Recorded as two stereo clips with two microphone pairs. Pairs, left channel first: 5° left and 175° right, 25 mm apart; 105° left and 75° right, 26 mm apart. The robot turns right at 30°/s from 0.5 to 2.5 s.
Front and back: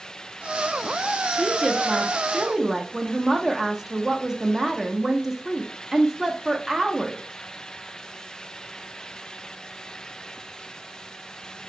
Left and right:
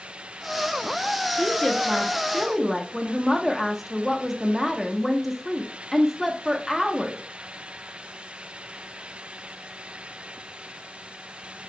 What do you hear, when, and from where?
1.3 s a woman speaking: 160° left, 0.6 m; by 7.2 s 160° right, 0.6 m